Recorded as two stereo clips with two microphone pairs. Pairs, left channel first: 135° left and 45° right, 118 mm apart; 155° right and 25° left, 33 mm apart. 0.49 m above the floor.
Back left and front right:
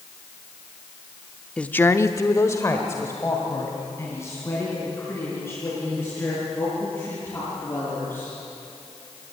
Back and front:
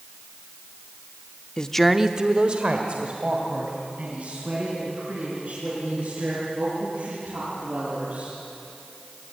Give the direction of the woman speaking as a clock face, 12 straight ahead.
5 o'clock.